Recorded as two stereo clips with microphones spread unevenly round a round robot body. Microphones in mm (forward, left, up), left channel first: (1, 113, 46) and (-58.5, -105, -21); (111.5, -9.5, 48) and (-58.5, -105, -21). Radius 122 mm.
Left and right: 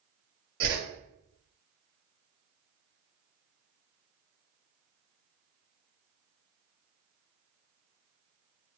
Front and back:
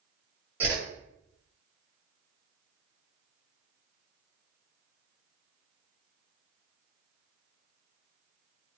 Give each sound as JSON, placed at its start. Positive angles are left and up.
{"t": 0.6, "sound": "a whoosh", "azimuth_deg": -90, "distance_m": 1.1}